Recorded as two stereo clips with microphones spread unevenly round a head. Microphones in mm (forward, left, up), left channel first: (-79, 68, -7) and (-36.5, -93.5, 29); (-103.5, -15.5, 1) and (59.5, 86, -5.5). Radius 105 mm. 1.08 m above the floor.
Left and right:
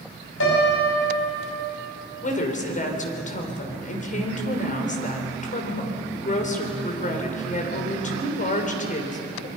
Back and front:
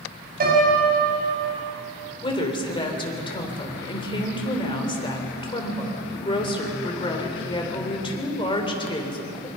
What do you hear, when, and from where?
0.4 s a piano: 70° left, 5.5 m
2.2 s a woman speaking: 150° left, 3.5 m